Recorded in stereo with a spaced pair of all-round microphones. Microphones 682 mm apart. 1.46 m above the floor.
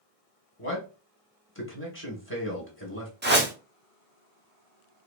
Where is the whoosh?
15° right (ahead or behind), 0.7 m.